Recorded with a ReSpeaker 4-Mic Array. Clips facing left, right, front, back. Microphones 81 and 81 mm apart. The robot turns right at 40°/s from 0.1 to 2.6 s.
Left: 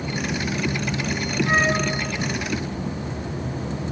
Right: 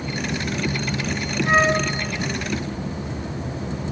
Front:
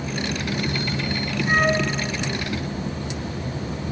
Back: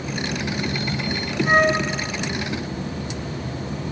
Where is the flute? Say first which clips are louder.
Right 4 dB, back 3 dB; 145° right, 6.5 m; by 1.8 s 130° right, 6.5 m.